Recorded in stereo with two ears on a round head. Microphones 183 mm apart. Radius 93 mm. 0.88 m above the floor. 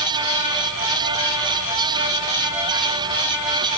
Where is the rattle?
No rattle in this recording.